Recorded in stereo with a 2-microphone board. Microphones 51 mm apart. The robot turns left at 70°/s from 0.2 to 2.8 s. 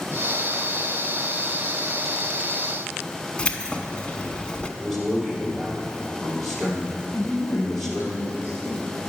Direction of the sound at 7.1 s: 60° left (ahead or behind).